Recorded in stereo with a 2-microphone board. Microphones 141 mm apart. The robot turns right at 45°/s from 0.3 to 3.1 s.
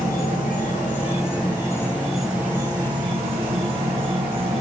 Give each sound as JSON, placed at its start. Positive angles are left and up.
{"t": 0.0, "sound": "an insect", "azimuth_deg": 95, "distance_m": 1.8}